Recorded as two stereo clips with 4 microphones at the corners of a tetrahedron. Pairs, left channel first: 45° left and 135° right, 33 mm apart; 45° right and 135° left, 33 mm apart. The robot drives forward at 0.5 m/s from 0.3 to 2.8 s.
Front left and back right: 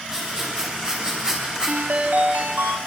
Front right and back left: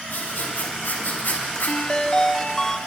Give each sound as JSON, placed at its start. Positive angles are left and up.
{"t": 0.1, "sound": "writing", "azimuth_deg": -60, "distance_m": 6.5}
{"t": 1.7, "sound": "a ringtone", "azimuth_deg": -100, "distance_m": 1.2}